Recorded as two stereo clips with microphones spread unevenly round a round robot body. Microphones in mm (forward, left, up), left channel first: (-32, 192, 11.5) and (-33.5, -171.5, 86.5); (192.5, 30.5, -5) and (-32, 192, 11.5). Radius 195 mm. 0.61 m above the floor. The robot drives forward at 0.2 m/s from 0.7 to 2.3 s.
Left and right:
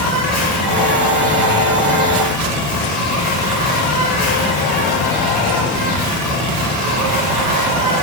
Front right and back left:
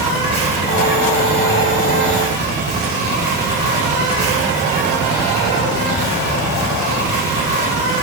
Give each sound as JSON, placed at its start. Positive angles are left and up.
{"t": 0.0, "sound": "an insect", "azimuth_deg": 135, "distance_m": 1.6}